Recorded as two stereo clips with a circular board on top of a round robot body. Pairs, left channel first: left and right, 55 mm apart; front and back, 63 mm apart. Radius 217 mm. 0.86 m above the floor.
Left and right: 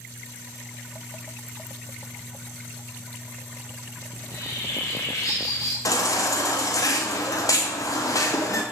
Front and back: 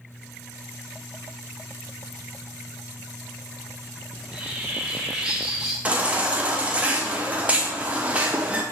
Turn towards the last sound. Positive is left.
turn(degrees=110)